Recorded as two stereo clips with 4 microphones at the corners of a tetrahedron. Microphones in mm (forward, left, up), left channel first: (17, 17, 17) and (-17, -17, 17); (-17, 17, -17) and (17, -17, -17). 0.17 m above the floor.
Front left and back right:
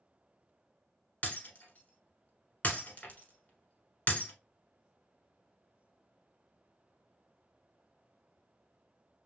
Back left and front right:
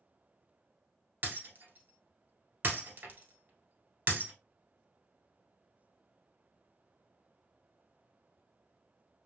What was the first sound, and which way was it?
Breaking glass, 5° right.